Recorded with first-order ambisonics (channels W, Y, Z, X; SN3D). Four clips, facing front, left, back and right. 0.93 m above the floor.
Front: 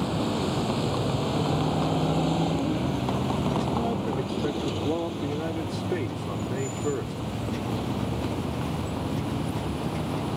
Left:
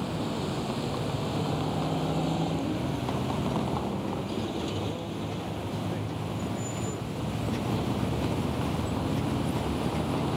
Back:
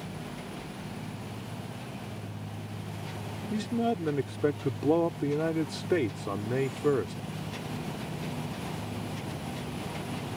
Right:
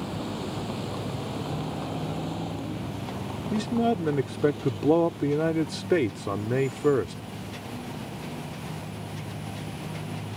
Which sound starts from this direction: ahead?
A vehicle, at 0.0 s.